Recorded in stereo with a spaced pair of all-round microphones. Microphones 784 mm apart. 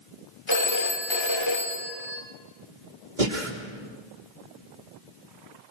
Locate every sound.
0.5 s a phone ringing: 35° left (ahead or behind), 2 m
3.2 s breathing: 75° right (ahead or behind), 3 m